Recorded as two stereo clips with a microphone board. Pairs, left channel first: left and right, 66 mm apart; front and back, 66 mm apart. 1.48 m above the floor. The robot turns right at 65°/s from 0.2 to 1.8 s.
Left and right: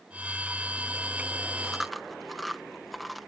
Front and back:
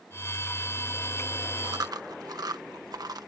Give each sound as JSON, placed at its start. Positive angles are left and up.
{"t": 1.6, "sound": "chewing", "azimuth_deg": 170}